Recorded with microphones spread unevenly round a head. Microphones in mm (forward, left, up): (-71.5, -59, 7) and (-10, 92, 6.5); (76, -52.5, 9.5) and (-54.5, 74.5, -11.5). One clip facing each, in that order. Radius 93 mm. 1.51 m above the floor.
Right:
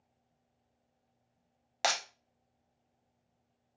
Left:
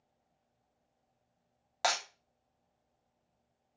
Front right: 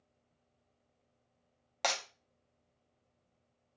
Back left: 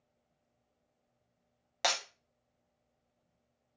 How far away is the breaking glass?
About 0.6 m.